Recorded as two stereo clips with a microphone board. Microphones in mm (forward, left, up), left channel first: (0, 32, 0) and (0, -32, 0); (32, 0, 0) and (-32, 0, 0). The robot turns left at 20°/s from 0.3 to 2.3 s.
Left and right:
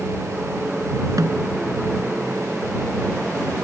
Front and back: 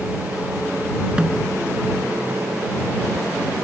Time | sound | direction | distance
1.2 | a snare drum | 105° right | ?